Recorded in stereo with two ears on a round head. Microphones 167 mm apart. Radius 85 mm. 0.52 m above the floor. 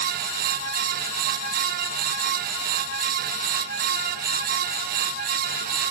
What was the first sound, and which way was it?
Only background noise.